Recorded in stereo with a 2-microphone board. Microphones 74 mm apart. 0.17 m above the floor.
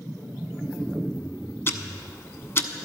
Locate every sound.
1.7 s ticking: 35° left (ahead or behind), 0.7 m